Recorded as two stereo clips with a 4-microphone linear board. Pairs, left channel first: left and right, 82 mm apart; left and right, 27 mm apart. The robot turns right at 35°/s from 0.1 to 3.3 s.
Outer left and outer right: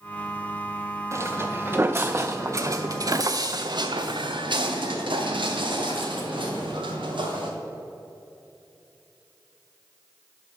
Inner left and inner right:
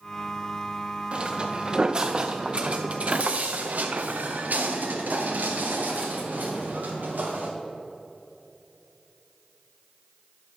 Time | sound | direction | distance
1.1 | footsteps | 35° right (ahead or behind) | 0.9 m